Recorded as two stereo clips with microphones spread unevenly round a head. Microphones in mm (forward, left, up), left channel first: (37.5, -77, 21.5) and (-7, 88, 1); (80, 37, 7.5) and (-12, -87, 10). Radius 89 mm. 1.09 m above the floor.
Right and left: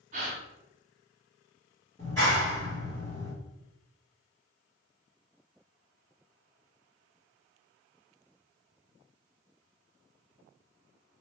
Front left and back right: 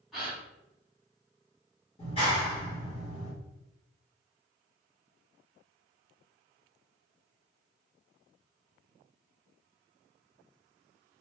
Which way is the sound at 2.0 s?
Straight ahead.